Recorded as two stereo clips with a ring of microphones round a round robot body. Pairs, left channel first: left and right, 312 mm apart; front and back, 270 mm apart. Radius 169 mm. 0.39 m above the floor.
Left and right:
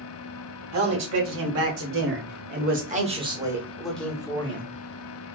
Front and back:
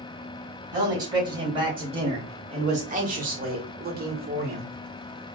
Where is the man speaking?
105° right, 1.9 m; by 4.7 s 150° left, 1.3 m.